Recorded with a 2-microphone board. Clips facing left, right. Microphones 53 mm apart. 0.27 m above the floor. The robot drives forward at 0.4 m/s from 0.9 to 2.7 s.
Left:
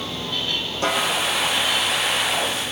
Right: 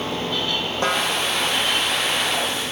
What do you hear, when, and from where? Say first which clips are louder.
0.8 s a snare drum: even; 35° right (ahead or behind), 2.5 m